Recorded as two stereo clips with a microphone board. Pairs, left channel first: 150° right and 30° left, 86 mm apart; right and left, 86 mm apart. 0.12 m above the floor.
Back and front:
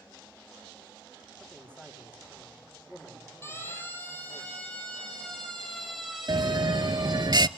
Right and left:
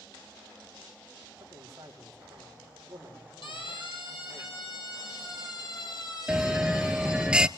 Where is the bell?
10° left, 0.5 m.